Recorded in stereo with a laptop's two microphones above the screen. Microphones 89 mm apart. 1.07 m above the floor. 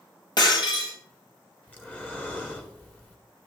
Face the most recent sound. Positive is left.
turn(degrees=15)  # may be behind; listen again after turning